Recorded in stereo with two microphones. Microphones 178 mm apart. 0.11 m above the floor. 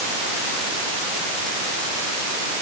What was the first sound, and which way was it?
Only background noise.